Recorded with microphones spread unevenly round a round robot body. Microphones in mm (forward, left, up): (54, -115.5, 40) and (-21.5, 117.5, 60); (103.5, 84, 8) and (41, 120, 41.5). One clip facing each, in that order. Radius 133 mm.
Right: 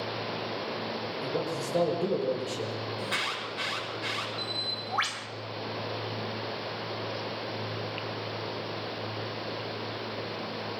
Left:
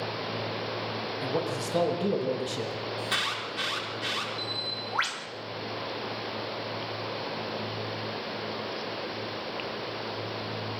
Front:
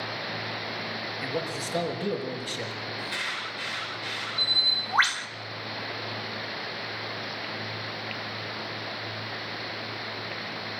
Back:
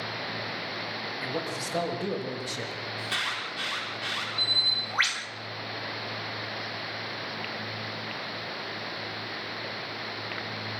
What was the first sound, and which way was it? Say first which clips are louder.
A man speaking: left 2 dB, front 2 dB; 70° left.